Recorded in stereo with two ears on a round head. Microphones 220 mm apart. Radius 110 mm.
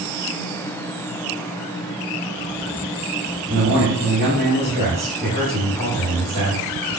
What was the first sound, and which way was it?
A man speaking, 40° right (ahead or behind).